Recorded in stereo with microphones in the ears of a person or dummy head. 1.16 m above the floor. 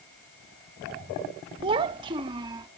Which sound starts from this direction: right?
A child speaking, at 1.6 s.